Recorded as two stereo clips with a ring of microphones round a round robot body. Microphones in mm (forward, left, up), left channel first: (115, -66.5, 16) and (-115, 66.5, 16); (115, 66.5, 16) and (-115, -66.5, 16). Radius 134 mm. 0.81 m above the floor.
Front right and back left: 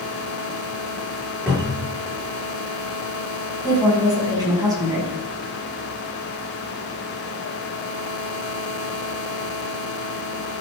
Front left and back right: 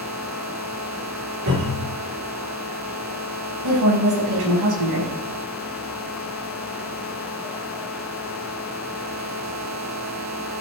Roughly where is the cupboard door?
Behind right.